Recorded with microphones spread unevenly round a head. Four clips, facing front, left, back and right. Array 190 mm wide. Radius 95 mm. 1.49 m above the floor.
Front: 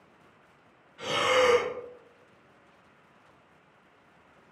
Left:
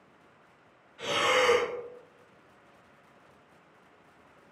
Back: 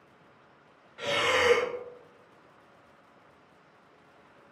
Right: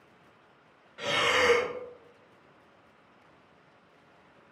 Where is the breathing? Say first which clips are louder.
Left 1 dB, front 2 dB; 125° right, 2.0 m.